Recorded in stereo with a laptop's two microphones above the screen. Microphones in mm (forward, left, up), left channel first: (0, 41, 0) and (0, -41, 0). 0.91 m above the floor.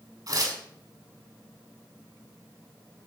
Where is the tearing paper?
50° right (ahead or behind), 7 m.